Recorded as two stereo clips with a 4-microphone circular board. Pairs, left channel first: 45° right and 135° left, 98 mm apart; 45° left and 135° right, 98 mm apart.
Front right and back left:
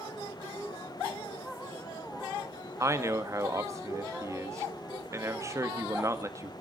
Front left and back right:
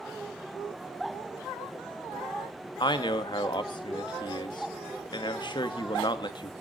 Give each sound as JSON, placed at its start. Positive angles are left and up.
{"t": 2.8, "sound": "a man speaking", "azimuth_deg": 80, "distance_m": 1.6}